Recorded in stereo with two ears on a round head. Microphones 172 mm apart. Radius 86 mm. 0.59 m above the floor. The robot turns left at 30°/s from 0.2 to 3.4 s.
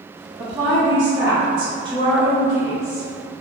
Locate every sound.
0.4 s a woman speaking: 20° right (ahead or behind), 1.2 m